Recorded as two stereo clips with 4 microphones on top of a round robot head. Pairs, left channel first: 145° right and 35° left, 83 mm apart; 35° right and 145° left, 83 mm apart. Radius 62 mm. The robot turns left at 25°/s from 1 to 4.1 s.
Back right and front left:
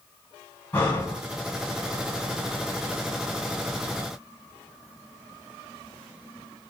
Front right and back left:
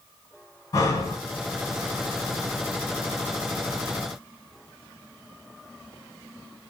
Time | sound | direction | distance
0.7 | breathing | 80° right | 1.7 m